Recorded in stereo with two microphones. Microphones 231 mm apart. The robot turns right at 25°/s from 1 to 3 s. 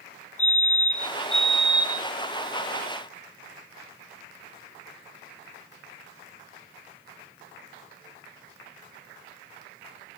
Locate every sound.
0.4 s a fire alarm: 30° left (ahead or behind), 3.5 m; by 2.1 s 10° left (ahead or behind), 3.5 m